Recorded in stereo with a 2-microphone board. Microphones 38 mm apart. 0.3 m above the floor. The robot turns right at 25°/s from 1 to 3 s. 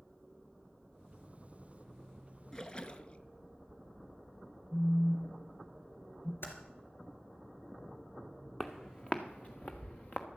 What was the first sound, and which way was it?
A splash, 15° left (ahead or behind).